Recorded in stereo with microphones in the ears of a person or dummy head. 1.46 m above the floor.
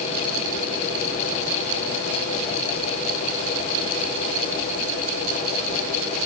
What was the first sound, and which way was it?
Only background noise.